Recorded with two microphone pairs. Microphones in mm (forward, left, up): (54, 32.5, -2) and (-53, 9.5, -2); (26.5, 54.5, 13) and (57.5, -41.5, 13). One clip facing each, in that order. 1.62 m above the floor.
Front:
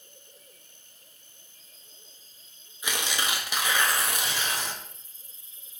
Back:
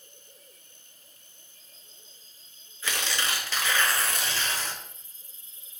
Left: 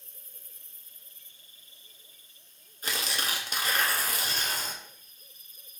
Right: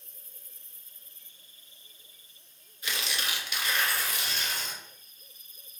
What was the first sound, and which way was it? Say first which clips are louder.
Tearing paper: front 1 dB, left 2 dB; 80° left.